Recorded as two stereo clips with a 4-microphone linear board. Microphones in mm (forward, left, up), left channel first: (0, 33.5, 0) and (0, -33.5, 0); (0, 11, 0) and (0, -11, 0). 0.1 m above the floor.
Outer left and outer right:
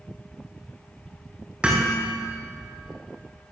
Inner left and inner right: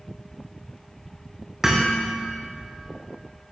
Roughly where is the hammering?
Centre.